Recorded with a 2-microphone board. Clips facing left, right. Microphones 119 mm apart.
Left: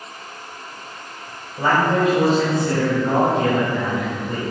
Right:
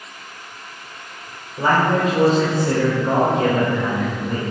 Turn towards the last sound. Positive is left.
turn(degrees=-65)  # may be behind; listen again after turning